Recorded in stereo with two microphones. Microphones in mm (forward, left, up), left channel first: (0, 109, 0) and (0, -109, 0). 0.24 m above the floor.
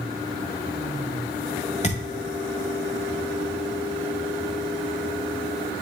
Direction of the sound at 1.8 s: 30° left (ahead or behind).